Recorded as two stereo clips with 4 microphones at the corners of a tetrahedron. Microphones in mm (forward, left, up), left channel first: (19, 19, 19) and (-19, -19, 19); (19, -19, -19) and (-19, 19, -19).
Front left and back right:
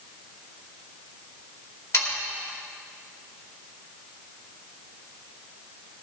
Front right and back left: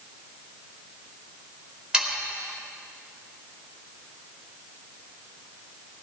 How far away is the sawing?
About 2.5 m.